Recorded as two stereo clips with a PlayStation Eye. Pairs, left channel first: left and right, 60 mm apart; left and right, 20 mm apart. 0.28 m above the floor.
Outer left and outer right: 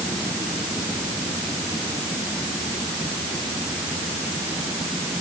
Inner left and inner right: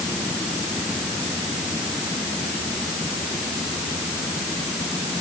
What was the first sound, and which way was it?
Only background noise.